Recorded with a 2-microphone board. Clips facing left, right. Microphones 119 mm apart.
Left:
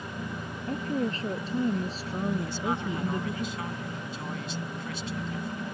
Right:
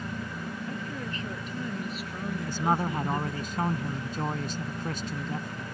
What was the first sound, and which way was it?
A woman speaking, 35° left (ahead or behind).